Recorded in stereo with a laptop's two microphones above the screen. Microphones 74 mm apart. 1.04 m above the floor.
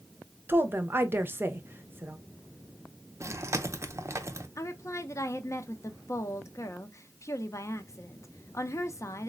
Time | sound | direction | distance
0.5 | a woman speaking | 30° right (ahead or behind) | 0.6 m
3.2 | chewing | 40° right (ahead or behind) | 0.6 m
4.6 | a woman speaking | 45° left (ahead or behind) | 0.6 m